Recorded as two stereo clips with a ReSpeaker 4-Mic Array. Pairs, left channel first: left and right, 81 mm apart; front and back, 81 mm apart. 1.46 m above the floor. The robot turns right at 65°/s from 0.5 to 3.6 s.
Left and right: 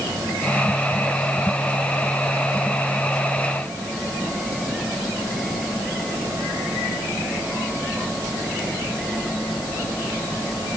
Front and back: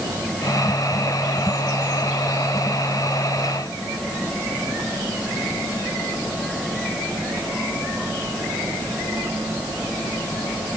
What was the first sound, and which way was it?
Only background noise.